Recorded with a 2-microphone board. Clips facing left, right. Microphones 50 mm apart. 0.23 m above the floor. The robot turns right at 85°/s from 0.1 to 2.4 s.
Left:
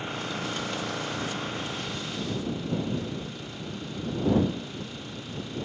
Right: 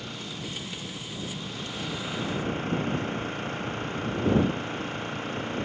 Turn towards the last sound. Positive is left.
turn(degrees=-140)